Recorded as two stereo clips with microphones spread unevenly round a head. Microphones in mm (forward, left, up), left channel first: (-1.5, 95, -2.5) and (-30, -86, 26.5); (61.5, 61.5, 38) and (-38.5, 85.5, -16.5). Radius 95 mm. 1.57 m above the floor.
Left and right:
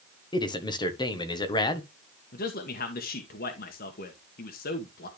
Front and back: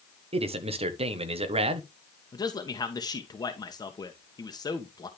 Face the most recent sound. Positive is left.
turn(degrees=35)